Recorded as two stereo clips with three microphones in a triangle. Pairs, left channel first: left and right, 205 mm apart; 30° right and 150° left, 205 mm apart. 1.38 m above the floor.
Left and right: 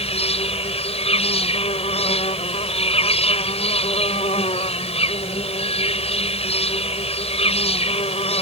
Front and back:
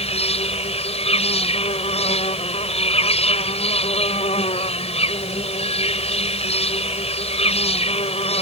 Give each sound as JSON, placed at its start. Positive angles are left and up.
{"t": 0.0, "sound": "an insect", "azimuth_deg": 30}